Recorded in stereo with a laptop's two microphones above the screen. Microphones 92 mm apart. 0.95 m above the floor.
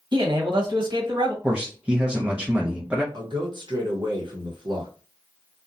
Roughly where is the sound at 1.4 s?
Centre.